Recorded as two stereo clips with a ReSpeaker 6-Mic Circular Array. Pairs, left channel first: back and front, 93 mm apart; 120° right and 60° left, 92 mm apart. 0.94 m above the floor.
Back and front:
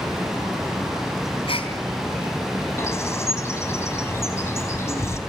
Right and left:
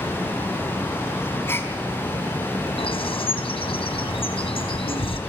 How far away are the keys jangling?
I don't hear keys jangling.